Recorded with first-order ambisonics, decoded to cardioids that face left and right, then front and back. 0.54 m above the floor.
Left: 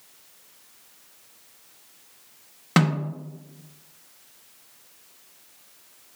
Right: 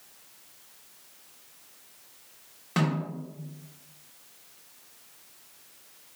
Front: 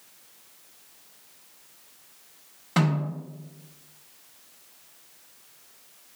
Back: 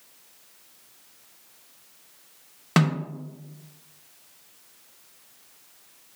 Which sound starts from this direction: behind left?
A snare drum, at 2.8 s.